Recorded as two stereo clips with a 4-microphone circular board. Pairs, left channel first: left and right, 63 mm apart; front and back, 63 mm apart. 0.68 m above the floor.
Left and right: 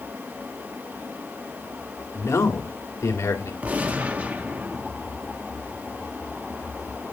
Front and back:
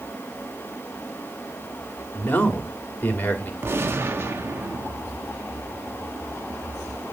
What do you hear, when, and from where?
2.1 s a man speaking: 60° left, 2.5 m
3.6 s a gunshot: 150° right, 1.1 m